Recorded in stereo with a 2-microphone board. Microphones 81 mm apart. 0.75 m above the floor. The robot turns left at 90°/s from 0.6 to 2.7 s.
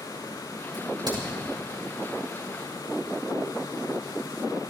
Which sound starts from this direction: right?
A crack, at 0.7 s.